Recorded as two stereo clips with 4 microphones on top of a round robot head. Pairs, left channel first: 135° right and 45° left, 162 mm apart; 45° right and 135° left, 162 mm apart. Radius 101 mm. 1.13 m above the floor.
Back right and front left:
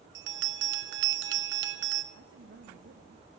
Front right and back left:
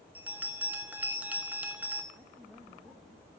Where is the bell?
55° left, 0.9 m.